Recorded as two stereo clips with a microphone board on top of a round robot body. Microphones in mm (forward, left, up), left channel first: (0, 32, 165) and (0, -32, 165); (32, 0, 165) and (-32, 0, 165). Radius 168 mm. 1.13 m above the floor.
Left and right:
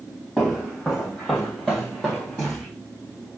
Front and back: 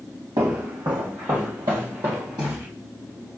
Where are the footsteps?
165° left, 2 m.